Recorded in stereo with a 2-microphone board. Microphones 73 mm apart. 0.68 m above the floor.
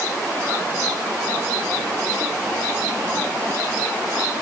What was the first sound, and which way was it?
Only background noise.